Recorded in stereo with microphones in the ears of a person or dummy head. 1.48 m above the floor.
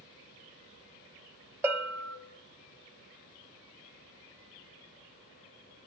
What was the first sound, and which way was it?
A bell, 15° right (ahead or behind).